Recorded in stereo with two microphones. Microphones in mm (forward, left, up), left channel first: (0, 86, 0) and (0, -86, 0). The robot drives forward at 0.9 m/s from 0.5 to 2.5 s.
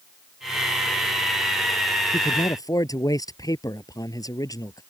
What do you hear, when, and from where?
2.1 s a man speaking: 20° left (ahead or behind)